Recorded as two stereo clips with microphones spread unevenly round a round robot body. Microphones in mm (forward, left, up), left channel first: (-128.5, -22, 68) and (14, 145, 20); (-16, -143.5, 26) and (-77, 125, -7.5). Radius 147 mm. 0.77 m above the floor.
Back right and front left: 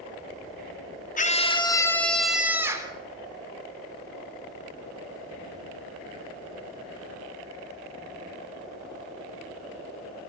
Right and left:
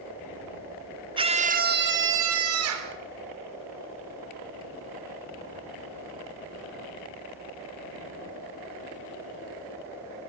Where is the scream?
170° left, 2.5 m; by 2.9 s 120° left, 3.5 m.